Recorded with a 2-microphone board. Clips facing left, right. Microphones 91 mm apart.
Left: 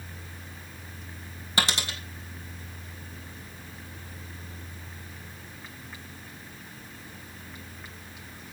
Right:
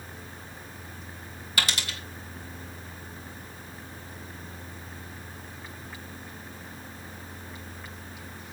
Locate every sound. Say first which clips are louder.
1.6 s a dropped coin: left 2 dB; 30° left (ahead or behind), 2.5 m